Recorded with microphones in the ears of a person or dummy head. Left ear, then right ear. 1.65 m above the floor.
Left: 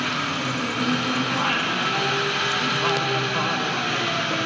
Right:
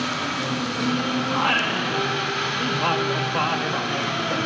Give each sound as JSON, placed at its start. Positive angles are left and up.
{"t": 0.0, "sound": "an engine running", "side_deg": 25, "distance_m": 5.5}
{"t": 1.3, "sound": "singing", "side_deg": -15, "distance_m": 1.6}